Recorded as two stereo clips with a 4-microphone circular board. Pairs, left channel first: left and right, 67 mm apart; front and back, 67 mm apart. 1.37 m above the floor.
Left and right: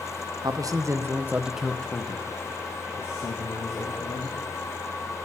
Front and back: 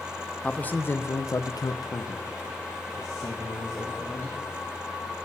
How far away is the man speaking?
About 0.7 m.